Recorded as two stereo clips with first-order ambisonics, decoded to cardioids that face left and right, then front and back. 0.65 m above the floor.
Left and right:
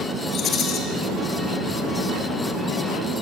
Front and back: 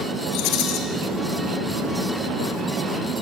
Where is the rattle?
30° left, 3.5 m.